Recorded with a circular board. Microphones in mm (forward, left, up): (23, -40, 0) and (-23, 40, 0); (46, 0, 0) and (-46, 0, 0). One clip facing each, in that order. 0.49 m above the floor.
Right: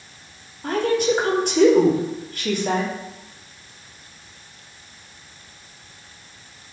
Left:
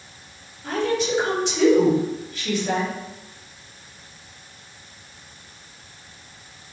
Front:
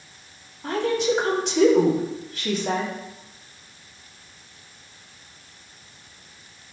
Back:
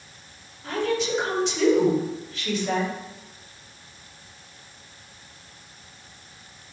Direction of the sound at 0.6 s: 30° right.